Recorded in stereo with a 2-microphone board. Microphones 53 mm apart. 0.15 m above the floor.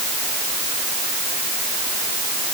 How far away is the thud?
No thud in this recording.